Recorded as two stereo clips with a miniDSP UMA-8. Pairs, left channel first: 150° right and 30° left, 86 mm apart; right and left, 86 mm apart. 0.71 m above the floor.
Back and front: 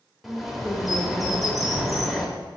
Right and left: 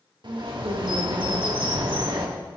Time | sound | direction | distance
0.2 | a bird | 120° left | 0.9 m